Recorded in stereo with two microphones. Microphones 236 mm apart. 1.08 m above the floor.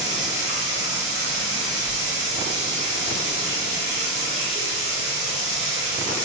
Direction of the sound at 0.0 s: 30° left (ahead or behind).